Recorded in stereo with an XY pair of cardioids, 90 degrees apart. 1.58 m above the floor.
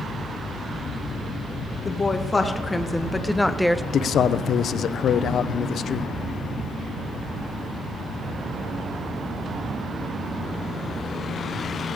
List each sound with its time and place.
1.9 s a woman speaking: 25° left, 2.5 m; by 3.8 s 5° right, 0.7 m
3.9 s a man speaking: 65° left, 0.7 m